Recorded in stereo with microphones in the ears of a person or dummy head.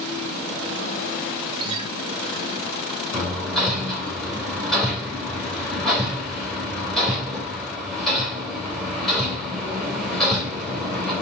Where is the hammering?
Centre (ahead or behind), 3 m.